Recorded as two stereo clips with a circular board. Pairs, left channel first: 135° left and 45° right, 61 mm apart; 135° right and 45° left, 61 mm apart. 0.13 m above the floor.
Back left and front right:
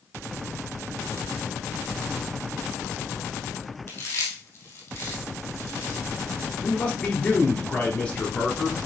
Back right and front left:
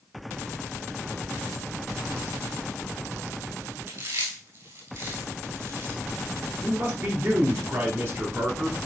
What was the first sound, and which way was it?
Chewing, 80° left.